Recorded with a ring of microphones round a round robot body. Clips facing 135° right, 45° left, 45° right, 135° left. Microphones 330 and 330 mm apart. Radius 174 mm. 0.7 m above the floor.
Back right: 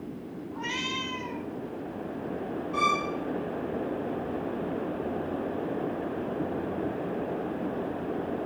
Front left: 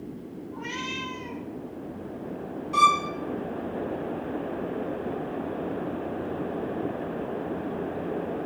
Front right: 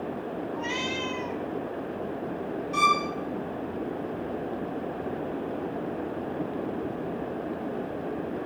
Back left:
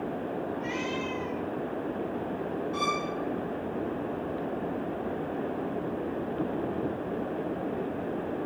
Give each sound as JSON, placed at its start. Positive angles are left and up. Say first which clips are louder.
{"t": 0.5, "sound": "a cat meowing", "louder": "even, even", "azimuth_deg": -80, "distance_m": 3.0}
{"t": 2.7, "sound": "a violin", "louder": "front left 2 dB, front right 1 dB", "azimuth_deg": 10, "distance_m": 2.5}